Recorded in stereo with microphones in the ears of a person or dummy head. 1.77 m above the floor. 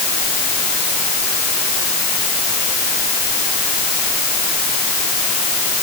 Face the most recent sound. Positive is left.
No sound to turn to.